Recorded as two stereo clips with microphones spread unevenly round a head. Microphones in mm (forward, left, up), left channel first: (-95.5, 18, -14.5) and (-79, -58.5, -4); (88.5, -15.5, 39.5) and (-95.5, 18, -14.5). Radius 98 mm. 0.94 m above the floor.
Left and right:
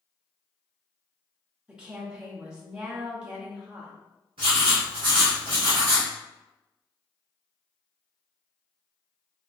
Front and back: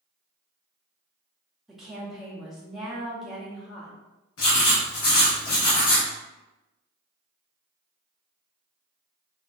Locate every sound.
1.7 s a woman speaking: 155° right, 0.8 m
4.4 s writing: 30° right, 1.5 m